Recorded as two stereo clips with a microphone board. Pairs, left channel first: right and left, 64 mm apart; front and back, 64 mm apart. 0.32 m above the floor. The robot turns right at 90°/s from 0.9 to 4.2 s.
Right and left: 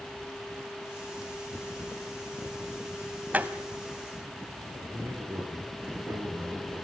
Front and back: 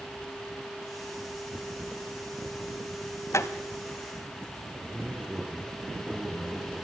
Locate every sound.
3.3 s a door slam: 30° left, 1.3 m; by 3.5 s 45° left, 1.3 m
4.8 s a man speaking: 105° left, 4.5 m